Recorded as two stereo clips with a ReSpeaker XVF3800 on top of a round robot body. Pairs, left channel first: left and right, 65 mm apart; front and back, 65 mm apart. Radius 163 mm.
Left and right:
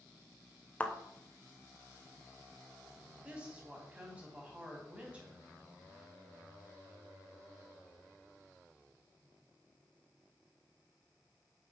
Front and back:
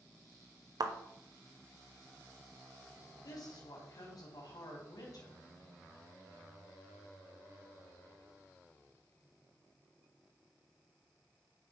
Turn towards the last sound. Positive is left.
turn(degrees=-20)